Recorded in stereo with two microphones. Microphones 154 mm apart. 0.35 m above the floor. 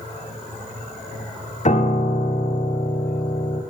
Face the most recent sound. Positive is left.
turn(degrees=50)  # may be behind; listen again after turning